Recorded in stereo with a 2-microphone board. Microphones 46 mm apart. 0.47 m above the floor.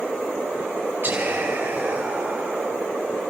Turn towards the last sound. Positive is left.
turn(degrees=-55)  # may be behind; listen again after turning